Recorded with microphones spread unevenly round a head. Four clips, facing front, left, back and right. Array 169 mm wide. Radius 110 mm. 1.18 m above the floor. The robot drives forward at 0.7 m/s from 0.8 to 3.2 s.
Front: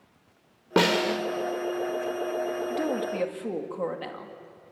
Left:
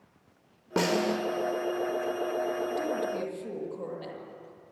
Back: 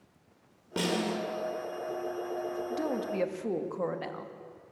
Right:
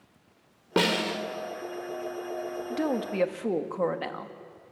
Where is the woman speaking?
65° right, 2.5 m; by 4.3 s 70° right, 2.5 m.